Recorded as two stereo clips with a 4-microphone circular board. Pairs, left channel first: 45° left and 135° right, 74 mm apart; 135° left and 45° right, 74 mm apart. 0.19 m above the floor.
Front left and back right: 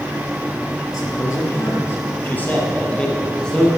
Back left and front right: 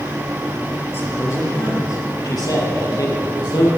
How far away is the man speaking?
About 4 m.